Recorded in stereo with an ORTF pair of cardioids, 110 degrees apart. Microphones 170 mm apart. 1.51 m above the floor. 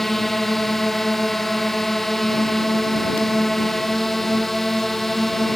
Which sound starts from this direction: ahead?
A drone, at 0.0 s.